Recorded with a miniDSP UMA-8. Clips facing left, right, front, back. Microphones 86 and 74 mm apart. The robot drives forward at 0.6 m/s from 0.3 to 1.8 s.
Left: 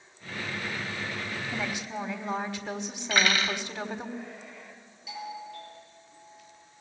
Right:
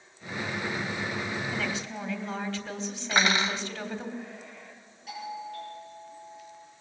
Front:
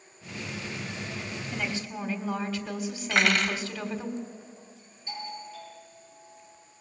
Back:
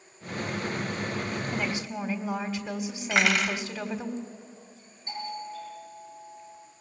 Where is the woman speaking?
125° left, 1.4 m; by 4.1 s 135° left, 1.4 m.